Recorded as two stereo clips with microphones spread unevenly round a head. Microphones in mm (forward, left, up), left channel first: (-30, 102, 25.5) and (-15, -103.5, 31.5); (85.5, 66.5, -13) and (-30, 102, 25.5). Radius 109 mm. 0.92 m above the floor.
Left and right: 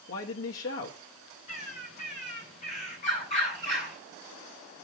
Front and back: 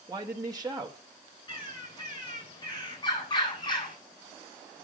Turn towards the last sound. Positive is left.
turn(degrees=35)